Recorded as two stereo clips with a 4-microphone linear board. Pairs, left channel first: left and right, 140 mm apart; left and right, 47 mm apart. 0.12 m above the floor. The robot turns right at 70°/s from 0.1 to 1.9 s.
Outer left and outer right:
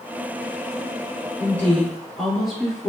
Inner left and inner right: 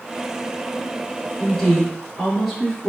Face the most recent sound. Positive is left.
turn(degrees=0)  # may be behind; listen again after turning